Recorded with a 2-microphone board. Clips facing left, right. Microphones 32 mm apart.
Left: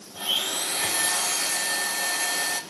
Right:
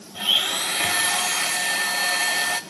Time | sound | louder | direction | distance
0.1 | a blender | right 5 dB | 40° right (ahead or behind) | 1.0 m